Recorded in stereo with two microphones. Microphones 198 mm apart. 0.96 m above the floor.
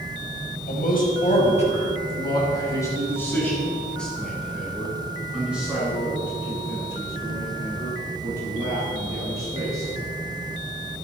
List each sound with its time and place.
0.7 s a man speaking: 50° left (ahead or behind), 4.5 m; by 9.9 s 20° right (ahead or behind), 15.5 m